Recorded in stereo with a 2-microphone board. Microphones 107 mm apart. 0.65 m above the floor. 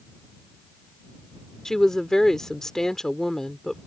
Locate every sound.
1.6 s a woman speaking: 5° left (ahead or behind)